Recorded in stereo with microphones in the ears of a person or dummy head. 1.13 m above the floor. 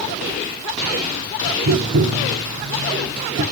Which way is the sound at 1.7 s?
65° right (ahead or behind).